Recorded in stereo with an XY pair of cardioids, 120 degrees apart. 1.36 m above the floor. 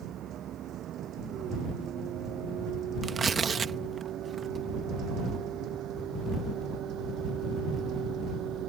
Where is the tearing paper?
35° right.